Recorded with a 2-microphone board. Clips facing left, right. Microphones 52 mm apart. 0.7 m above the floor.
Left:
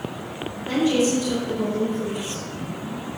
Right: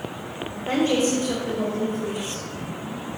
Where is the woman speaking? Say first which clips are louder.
Left 1 dB; 40° right (ahead or behind), 2 m; by 2.4 s 60° right (ahead or behind), 4 m.